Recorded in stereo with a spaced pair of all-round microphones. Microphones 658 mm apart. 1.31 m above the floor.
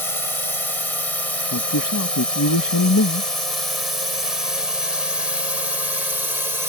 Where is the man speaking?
30° left (ahead or behind).